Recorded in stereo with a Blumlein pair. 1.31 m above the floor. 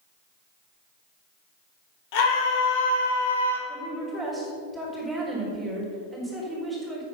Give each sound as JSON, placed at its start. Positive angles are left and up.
{"t": 2.1, "sound": "a scream", "azimuth_deg": 45, "distance_m": 3.5}
{"t": 3.7, "sound": "a woman speaking", "azimuth_deg": -10, "distance_m": 4.5}